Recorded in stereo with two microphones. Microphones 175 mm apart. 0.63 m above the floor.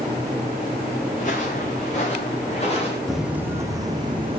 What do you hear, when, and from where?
1.1 s footsteps: 45° left (ahead or behind), 4.5 m; by 3.0 s 35° left (ahead or behind), 5 m
3.1 s footsteps: centre (ahead or behind), 1.7 m; by 4.4 s 30° right (ahead or behind), 2.5 m